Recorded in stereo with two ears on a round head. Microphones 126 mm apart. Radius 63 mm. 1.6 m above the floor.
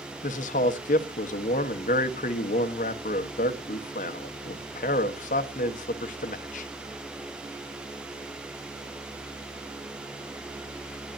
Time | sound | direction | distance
0.2 | a man speaking | 65° left (ahead or behind) | 1.2 m